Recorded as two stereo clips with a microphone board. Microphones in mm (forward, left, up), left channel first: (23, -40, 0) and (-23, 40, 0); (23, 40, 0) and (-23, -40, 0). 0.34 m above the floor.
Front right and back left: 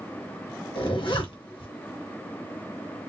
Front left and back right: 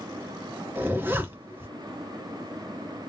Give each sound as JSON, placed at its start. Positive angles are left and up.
{"t": 0.8, "sound": "a zipper", "azimuth_deg": -55, "distance_m": 1.5}